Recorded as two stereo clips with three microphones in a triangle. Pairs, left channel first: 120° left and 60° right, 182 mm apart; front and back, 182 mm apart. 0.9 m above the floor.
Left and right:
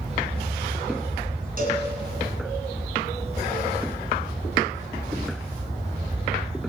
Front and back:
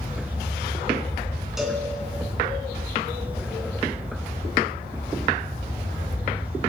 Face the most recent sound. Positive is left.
turn(degrees=-90)